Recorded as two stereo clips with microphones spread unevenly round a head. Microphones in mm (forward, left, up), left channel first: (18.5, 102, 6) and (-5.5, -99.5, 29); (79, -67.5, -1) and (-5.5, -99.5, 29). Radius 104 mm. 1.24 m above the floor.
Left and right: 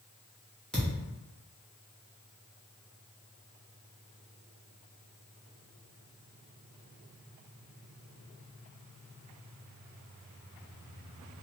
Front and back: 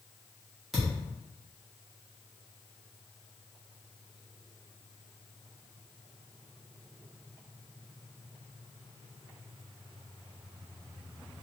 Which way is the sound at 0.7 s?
175° right.